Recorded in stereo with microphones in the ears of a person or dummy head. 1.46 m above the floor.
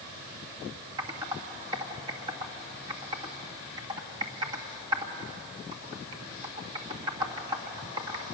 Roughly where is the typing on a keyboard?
Right.